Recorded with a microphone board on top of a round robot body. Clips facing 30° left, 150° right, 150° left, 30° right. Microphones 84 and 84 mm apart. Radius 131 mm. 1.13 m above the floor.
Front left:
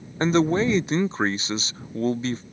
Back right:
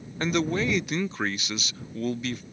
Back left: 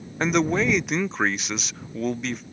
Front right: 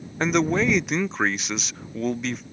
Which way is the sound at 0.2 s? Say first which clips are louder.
Front left 6 dB, even; 60° left.